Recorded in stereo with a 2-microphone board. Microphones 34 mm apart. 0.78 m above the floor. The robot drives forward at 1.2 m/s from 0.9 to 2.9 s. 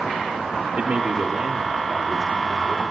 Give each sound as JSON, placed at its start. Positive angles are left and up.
{"t": 0.8, "sound": "a man speaking", "side_deg": -45, "distance_m": 1.4}